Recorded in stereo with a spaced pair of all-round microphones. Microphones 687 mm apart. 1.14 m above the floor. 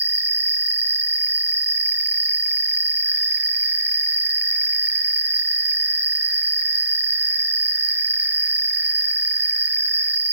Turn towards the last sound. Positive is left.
turn(degrees=-45)  # may be behind; listen again after turning